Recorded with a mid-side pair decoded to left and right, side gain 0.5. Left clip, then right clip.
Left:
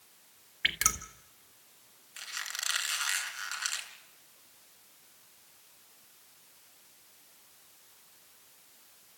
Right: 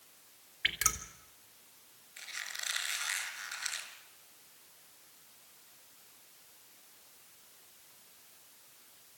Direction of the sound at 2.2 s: 70° left.